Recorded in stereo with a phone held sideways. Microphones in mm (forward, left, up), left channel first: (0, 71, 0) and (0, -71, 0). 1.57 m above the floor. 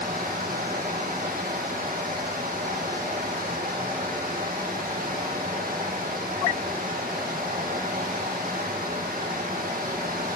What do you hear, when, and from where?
0.0 s running water: 85° right, 1.7 m